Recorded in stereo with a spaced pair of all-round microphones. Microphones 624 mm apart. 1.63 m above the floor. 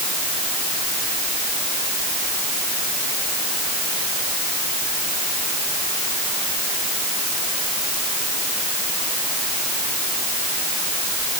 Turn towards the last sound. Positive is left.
No sound to turn to.